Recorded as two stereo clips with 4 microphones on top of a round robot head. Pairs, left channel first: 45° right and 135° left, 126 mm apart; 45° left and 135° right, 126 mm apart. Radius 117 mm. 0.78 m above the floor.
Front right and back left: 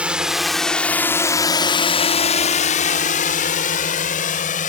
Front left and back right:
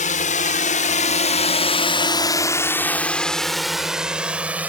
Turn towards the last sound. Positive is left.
turn(degrees=-60)